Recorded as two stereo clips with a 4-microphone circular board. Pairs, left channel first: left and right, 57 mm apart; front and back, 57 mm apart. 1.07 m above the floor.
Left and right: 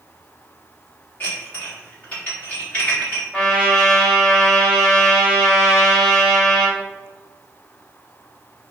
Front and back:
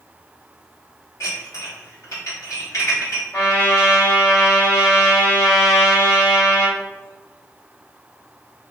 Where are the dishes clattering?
30° left, 1.5 m.